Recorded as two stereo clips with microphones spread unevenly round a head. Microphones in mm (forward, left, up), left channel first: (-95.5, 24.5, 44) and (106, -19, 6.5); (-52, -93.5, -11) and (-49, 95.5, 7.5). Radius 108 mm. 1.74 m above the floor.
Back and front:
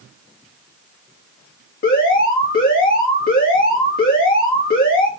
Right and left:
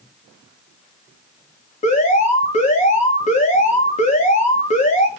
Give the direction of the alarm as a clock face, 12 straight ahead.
5 o'clock.